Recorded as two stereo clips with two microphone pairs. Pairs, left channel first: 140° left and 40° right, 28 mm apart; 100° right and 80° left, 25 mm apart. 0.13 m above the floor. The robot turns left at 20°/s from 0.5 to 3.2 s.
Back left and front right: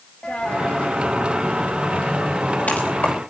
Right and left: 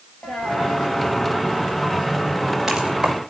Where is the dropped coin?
160° right, 4 m; by 3.2 s 145° left, 4 m.